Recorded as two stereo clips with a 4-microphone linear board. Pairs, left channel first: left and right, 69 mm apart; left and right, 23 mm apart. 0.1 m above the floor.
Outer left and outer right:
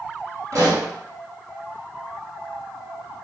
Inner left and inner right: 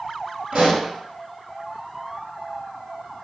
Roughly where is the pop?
Right.